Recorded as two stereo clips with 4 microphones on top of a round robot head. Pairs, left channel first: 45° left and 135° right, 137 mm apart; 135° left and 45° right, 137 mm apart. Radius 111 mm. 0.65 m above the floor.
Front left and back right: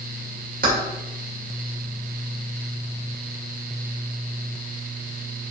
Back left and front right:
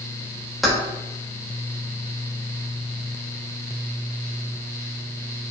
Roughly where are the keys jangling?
Behind right.